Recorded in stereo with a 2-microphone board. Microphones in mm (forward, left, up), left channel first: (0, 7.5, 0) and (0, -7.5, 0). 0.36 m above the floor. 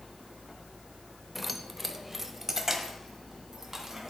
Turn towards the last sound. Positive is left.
turn(degrees=-25)  # may be behind; listen again after turning